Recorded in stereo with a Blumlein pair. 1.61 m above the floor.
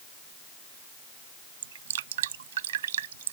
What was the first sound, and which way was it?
Dripping, 60° right.